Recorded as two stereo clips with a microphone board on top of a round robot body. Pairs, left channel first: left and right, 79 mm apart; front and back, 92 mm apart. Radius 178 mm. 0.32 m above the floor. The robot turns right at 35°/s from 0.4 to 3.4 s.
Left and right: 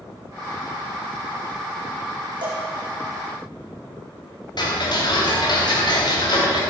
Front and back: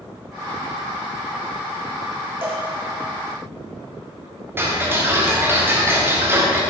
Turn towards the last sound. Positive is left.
turn(degrees=115)